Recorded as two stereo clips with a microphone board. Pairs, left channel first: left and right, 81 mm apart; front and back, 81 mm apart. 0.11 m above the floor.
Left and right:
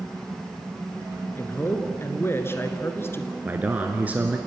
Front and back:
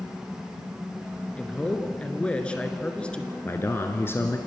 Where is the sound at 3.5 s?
35° right, 1.3 m.